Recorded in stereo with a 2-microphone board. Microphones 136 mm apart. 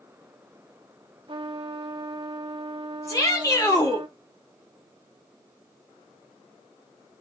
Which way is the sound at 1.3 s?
40° right (ahead or behind).